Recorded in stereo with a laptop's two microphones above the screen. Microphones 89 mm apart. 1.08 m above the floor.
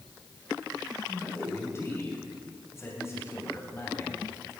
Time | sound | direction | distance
1.1 | a man speaking | 30° left (ahead or behind) | 6.5 m